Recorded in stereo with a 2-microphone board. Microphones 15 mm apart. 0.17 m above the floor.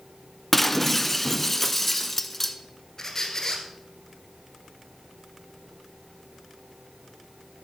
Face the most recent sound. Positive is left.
turn(degrees=30)  # may be behind; listen again after turning